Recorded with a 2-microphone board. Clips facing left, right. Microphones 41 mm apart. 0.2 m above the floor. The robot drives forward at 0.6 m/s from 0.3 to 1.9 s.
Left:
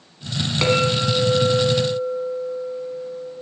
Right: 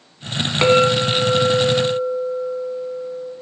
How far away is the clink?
About 1.0 m.